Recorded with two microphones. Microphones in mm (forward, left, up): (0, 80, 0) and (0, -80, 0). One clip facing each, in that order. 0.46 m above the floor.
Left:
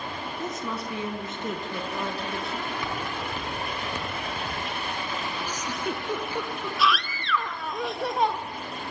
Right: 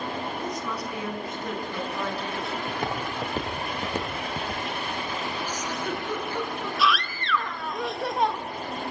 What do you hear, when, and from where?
0.4 s a woman speaking: 25° left (ahead or behind), 4 m; by 2.6 s 20° left (ahead or behind), 6 m
2.7 s footsteps: 50° right (ahead or behind), 5 m; by 4.6 s 30° right (ahead or behind), 4.5 m
5.5 s a giggle: 15° left (ahead or behind), 4 m
6.8 s a scream: centre (ahead or behind), 1.1 m